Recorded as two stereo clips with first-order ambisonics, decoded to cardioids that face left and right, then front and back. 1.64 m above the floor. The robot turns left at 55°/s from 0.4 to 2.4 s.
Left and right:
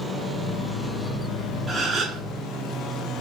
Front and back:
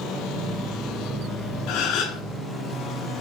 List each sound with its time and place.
1.7 s a gasp: 10° right, 0.8 m; by 2.2 s 40° right, 0.8 m